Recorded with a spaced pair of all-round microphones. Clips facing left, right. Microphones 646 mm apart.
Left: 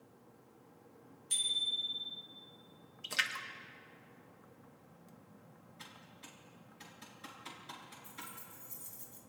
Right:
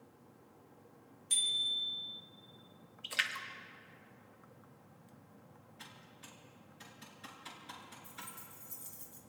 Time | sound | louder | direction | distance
1.3 | a bicycle bell | even | 35° right (ahead or behind) | 4 m
3.0 | a splash | left 2 dB | 65° left (ahead or behind) | 1.2 m
5.8 | typing on a keyboard | left 1 dB | 20° right (ahead or behind) | 4 m
8.0 | keys jangling | left 1 dB | 15° left (ahead or behind) | 2 m